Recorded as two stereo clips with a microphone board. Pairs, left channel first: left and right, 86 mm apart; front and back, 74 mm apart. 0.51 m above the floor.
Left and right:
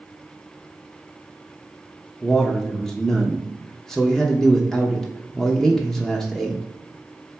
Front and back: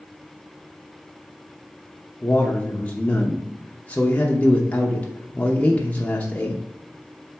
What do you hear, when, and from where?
2.2 s a man speaking: 15° left, 0.7 m